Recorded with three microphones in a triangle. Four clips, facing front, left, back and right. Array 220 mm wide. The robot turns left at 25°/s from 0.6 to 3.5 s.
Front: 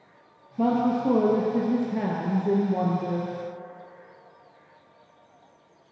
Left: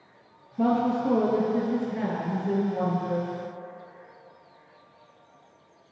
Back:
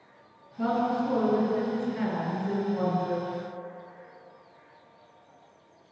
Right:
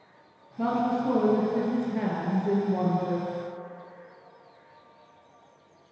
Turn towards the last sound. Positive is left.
turn(degrees=-40)